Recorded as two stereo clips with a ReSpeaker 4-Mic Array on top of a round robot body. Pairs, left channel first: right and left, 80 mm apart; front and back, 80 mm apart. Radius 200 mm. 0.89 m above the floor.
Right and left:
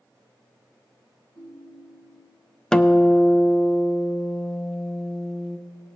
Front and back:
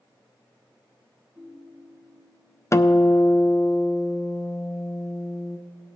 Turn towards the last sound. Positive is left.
turn(degrees=-15)